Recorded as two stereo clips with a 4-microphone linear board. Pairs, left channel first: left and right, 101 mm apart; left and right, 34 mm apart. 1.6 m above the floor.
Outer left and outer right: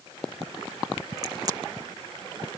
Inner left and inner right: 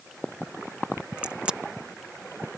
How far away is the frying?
No frying in this recording.